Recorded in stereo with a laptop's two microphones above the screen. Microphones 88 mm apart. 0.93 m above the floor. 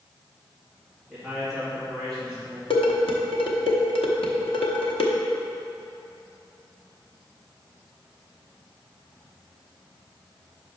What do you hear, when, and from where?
1.1 s a man speaking: centre (ahead or behind), 1.9 m
2.7 s dishes clattering: 85° left, 0.8 m